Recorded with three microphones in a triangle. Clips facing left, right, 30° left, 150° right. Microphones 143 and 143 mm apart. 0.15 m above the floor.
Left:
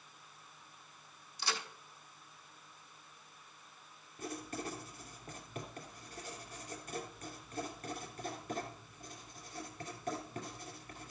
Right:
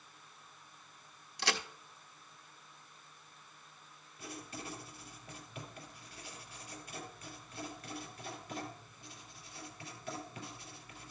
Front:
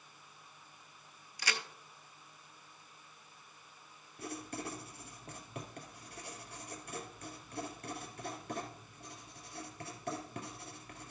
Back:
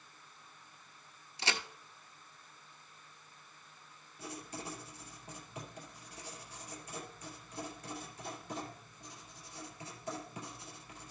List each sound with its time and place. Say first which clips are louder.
1.4 s a crack: right 4 dB, back 2 dB; 85° right, 0.8 m
4.2 s writing: left 5 dB, front 3 dB; 50° left, 2.5 m